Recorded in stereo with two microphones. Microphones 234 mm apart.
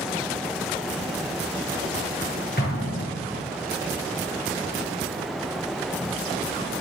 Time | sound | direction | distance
2.6 | an explosion | 45° left (ahead or behind) | 7.5 m